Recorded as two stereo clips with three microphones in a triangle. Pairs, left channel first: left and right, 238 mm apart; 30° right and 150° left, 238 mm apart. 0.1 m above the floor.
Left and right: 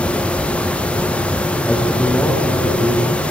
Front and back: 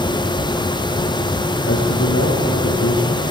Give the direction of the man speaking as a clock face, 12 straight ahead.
12 o'clock.